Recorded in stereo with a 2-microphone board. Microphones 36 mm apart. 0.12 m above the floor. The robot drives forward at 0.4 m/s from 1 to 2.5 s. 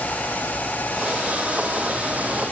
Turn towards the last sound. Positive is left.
No sound to turn to.